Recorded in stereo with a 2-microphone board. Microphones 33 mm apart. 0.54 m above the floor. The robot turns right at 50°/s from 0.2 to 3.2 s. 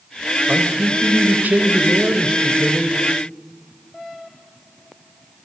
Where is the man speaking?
130° right, 3 m; by 2.9 s 5° right, 3 m.